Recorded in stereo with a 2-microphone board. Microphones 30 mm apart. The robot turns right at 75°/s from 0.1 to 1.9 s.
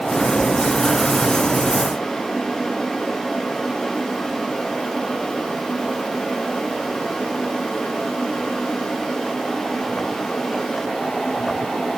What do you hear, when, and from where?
Only background noise.